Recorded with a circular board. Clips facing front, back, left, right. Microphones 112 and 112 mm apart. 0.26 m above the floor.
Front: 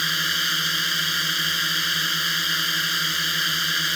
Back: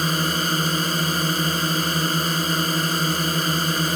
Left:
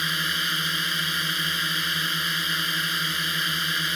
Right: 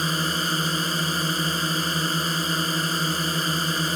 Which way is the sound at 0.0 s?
140° right.